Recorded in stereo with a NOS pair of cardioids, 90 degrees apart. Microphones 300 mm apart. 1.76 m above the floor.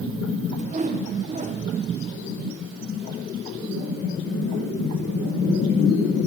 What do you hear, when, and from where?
0.6 s a whoosh: 25° right, 1.8 m